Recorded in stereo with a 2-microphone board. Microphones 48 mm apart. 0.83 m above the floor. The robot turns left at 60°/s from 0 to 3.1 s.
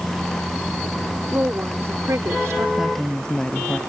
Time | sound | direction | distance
1.3 | a woman speaking | 35° right | ?
2.8 | a woman speaking | 10° right (ahead or behind) | ?